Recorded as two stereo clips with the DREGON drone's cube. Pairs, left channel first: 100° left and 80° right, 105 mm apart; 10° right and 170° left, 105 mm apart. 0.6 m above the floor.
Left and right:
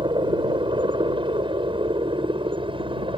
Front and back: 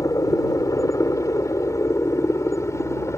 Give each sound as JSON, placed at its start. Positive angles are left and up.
{"t": 0.0, "sound": "a helicopter", "azimuth_deg": -60}